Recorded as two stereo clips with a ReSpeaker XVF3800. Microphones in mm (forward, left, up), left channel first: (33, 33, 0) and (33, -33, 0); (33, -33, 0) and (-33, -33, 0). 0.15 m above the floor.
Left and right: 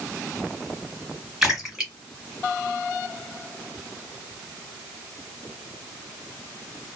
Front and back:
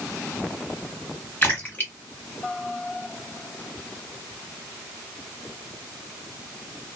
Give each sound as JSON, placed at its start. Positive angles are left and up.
{"t": 1.4, "sound": "a splash", "azimuth_deg": -20, "distance_m": 1.7}